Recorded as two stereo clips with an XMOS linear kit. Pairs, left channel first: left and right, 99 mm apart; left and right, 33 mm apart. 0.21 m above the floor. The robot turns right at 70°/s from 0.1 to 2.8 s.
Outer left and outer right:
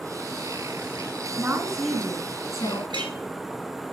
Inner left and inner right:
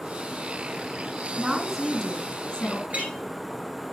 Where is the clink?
55° right (ahead or behind), 2 m.